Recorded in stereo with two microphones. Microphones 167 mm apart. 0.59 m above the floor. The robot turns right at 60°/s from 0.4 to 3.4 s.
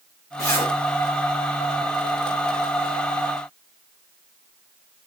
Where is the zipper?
45° left (ahead or behind), 1.1 m; by 0.7 s 25° left (ahead or behind), 1.1 m.